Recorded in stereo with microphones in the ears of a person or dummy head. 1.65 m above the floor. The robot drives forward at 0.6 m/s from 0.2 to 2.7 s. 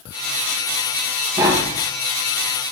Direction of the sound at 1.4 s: 15° right (ahead or behind).